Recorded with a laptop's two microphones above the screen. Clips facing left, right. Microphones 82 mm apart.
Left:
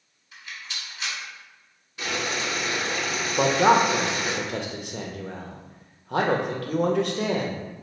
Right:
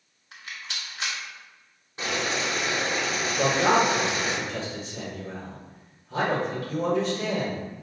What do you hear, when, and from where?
0.3 s a rattle: 70° right (ahead or behind), 1.2 m
2.0 s boiling: 35° right (ahead or behind), 1.3 m
3.4 s a man speaking: 65° left (ahead or behind), 0.7 m